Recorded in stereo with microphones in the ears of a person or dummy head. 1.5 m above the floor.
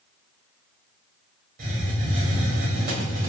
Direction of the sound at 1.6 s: 55° right (ahead or behind).